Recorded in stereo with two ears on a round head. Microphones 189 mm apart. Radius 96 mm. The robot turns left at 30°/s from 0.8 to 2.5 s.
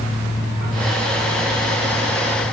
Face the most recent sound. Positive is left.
No sound to turn to.